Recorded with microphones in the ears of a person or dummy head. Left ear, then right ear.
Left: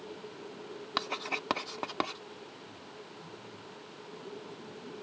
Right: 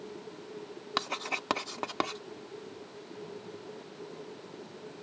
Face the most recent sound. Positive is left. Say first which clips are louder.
# right 1 dB
turn(degrees=-5)  # may be behind; listen again after turning